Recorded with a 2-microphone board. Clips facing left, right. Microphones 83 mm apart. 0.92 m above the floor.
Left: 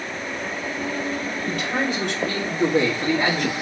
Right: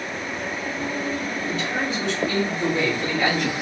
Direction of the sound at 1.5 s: 60° left (ahead or behind).